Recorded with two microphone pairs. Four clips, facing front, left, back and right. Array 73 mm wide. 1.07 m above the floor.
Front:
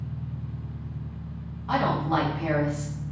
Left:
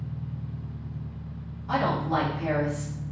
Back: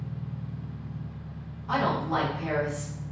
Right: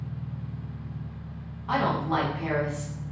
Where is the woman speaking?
60° right, 1.1 m.